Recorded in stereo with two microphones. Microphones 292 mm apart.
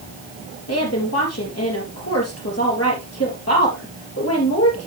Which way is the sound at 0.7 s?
55° left (ahead or behind).